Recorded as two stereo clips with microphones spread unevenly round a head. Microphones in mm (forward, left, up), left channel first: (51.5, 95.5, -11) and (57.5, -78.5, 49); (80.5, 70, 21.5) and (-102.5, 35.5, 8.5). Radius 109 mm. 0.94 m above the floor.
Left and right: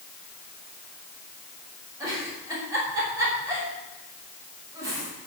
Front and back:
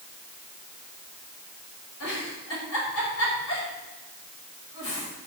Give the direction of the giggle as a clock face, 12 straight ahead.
12 o'clock.